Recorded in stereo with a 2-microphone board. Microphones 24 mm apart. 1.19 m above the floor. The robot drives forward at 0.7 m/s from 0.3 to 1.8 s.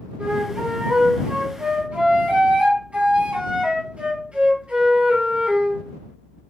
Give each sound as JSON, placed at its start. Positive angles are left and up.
{"t": 0.2, "sound": "a flute", "side_deg": -45, "distance_m": 5.0}